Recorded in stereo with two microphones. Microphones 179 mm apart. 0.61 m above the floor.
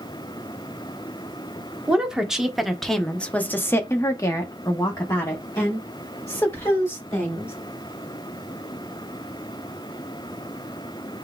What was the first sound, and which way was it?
A woman speaking, 5° right (ahead or behind).